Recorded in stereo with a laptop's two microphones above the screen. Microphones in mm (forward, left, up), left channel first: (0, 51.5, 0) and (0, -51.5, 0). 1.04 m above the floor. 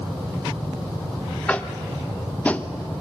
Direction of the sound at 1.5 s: 15° left (ahead or behind).